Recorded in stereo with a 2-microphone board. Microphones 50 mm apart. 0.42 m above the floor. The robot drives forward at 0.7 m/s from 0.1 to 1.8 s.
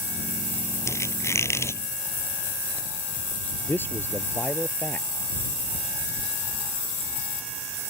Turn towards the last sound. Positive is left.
turn(degrees=40)  # may be behind; listen again after turning